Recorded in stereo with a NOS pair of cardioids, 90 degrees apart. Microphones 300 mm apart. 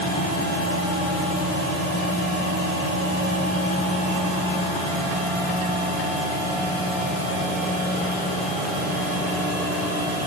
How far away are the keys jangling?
No keys jangling in this recording.